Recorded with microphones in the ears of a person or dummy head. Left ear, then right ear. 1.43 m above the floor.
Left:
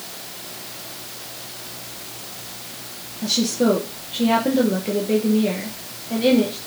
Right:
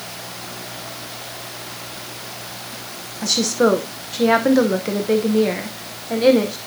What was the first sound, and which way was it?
A woman speaking, 55° right (ahead or behind).